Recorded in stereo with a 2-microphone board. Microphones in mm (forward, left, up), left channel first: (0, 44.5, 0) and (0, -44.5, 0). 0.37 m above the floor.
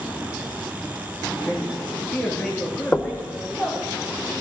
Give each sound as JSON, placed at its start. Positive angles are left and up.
{"t": 1.4, "sound": "a man speaking", "side_deg": 20, "distance_m": 5.0}
{"t": 2.9, "sound": "knocking", "side_deg": 20, "distance_m": 0.6}